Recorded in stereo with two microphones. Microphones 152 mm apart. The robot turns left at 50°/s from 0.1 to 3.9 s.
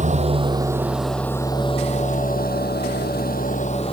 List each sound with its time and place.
0.0 s an engine running: 130° right; by 3.9 s 40° left